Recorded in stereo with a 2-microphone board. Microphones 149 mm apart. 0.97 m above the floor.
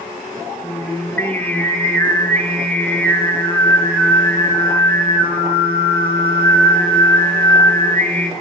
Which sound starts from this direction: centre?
Singing, at 0.6 s.